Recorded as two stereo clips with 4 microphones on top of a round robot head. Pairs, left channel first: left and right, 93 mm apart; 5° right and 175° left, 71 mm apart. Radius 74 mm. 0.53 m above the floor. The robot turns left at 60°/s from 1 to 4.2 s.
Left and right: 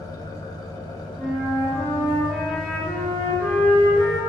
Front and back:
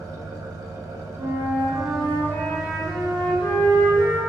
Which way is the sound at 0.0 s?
135° left.